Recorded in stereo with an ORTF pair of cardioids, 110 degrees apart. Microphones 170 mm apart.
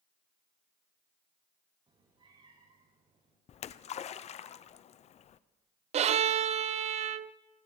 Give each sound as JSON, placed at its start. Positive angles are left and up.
{"t": 1.9, "sound": "a cat meowing", "azimuth_deg": -30, "distance_m": 4.0}
{"t": 3.5, "sound": "a splash", "azimuth_deg": 40, "distance_m": 0.5}
{"t": 5.9, "sound": "a violin", "azimuth_deg": -40, "distance_m": 0.5}